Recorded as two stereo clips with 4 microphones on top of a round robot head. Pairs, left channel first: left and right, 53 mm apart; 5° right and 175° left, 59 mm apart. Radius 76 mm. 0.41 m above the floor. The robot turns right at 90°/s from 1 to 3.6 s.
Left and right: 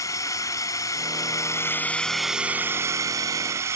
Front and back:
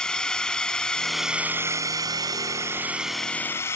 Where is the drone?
75° left; by 3.8 s 55° right.